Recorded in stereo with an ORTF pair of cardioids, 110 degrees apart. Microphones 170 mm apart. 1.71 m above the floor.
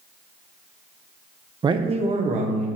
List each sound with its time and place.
1.6 s a man speaking: 25° right, 0.6 m; by 2.7 s 45° right, 1.8 m